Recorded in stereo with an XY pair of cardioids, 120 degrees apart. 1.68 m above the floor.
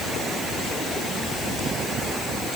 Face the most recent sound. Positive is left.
No sound to turn to.